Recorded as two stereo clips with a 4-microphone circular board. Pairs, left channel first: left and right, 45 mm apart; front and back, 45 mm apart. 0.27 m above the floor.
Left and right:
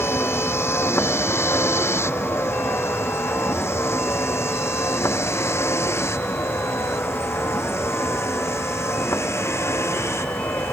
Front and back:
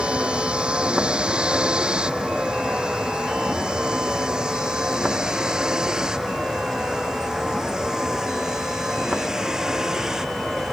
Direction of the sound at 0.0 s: 115° left.